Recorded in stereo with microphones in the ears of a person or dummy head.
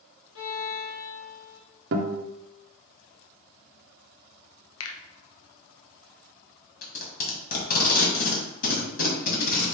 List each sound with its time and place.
0.3 s a violin: 80° left, 1.3 m
1.9 s a guitar: 60° right (ahead or behind), 0.6 m
4.8 s a finger snap: 85° left, 0.8 m
6.8 s tape being pulled: 50° left (ahead or behind), 1.8 m